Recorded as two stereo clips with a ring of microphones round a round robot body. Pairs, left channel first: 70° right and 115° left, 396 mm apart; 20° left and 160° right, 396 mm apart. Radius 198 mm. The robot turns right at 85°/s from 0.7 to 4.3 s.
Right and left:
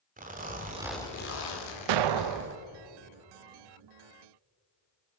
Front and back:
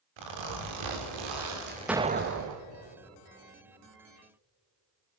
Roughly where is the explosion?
Behind left.